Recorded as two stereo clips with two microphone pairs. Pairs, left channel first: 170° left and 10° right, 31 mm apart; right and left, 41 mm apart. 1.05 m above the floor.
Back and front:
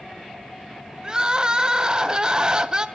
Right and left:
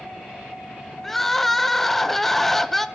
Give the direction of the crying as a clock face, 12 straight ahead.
12 o'clock.